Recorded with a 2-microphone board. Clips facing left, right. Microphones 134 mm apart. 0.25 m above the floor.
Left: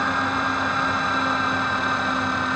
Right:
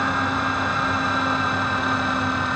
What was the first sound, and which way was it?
Only background noise.